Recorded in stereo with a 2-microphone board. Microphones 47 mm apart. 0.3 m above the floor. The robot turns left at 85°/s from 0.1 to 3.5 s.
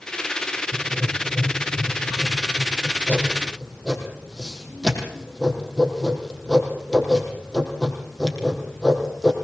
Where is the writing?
60° right (ahead or behind), 6 m; by 9.3 s 5° left (ahead or behind), 6 m.